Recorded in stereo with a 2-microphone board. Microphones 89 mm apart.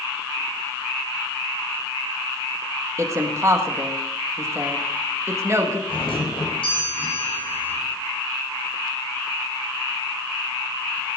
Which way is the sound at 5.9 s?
75° left (ahead or behind).